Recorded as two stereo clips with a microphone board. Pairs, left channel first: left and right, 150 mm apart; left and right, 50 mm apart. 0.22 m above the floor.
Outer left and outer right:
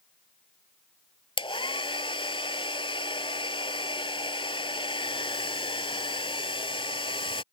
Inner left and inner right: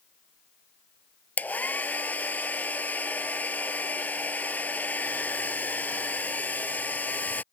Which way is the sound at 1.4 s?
35° left (ahead or behind).